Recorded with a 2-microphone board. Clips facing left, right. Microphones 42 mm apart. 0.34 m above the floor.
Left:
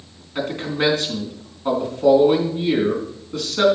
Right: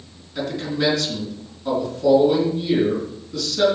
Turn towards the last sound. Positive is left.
turn(degrees=40)  # may be behind; listen again after turning